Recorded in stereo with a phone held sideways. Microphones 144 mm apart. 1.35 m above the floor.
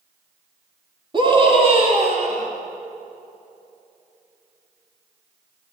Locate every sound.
1.1 s a scream: 35° right (ahead or behind), 4 m; by 2.5 s 60° right (ahead or behind), 4.5 m